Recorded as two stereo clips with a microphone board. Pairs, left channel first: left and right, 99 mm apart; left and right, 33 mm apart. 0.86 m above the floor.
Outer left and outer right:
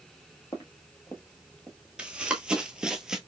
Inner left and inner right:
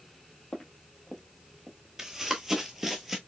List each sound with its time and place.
0.5 s footsteps: 35° left (ahead or behind), 1.1 m; by 1.8 s 5° right (ahead or behind), 0.8 m
2.0 s running footsteps: 10° right (ahead or behind), 0.9 m; by 3.2 s 5° right (ahead or behind), 0.9 m